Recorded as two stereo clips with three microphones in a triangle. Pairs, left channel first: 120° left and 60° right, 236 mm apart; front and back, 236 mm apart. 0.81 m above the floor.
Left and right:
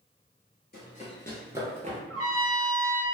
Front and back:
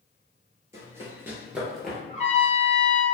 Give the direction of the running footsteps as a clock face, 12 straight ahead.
8 o'clock.